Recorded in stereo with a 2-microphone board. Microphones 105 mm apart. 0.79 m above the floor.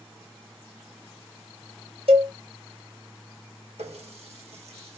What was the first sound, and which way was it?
A cowbell, 75° right (ahead or behind).